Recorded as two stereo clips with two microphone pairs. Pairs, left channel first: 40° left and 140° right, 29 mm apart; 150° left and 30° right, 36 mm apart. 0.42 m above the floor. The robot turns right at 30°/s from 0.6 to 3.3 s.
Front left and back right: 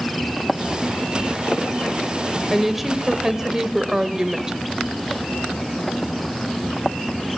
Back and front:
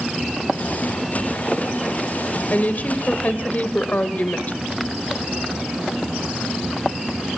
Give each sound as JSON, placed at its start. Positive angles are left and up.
{"t": 2.5, "sound": "a woman speaking", "azimuth_deg": 130, "distance_m": 1.5}